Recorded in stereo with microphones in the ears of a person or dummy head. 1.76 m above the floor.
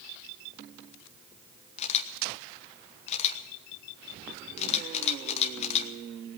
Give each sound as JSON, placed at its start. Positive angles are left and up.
{"t": 1.8, "sound": "a camera shutter", "side_deg": 35, "distance_m": 1.2}